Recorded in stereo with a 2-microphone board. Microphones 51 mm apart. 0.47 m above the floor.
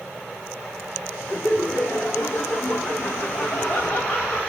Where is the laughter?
70° left (ahead or behind), 4.5 m; by 4.4 s 50° left (ahead or behind), 2.5 m.